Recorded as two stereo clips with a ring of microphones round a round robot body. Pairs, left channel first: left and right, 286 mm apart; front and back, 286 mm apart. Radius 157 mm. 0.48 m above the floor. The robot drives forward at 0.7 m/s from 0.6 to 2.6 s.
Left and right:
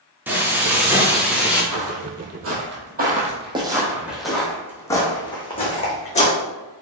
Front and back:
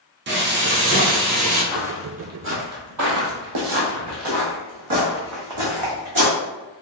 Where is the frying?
170° right, 1.1 m; by 1.6 s 175° right, 1.6 m.